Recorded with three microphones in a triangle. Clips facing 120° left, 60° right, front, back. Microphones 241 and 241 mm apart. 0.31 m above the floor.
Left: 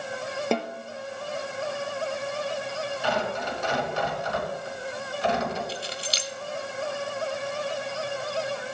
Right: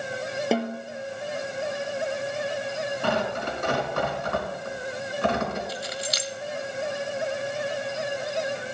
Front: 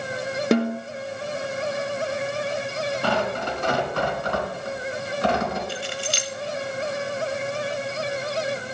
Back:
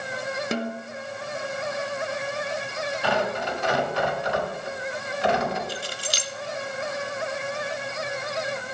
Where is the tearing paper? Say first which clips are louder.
Right 1 dB, back 1 dB; 35° right, 3.5 m.